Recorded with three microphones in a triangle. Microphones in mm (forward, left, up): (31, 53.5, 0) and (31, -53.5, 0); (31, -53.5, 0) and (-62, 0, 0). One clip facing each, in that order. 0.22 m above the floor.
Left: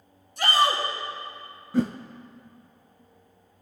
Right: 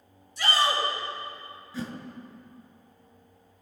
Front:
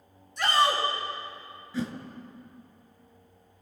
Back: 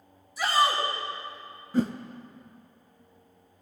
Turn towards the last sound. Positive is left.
turn(degrees=115)